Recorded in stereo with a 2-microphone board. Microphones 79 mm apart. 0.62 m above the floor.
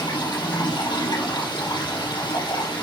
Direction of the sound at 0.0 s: 65° left (ahead or behind).